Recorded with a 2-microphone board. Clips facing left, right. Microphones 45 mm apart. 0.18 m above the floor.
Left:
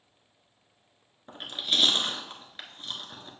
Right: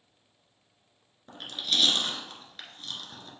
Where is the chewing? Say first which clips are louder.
Left 1 dB; 20° left (ahead or behind), 1.4 m.